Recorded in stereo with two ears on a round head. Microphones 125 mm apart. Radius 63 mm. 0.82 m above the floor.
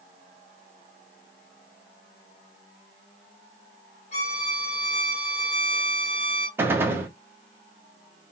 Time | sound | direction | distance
4.1 | a violin | 55° left (ahead or behind) | 1.2 m
6.6 | a gunshot | 15° right (ahead or behind) | 0.6 m